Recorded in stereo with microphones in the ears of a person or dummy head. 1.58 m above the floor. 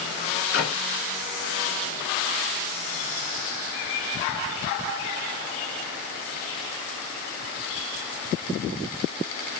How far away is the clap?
About 5 m.